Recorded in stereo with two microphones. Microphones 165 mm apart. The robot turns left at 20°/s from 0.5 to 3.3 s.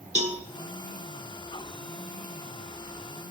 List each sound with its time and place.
0.1 s a cowbell: 40° right (ahead or behind), 0.5 m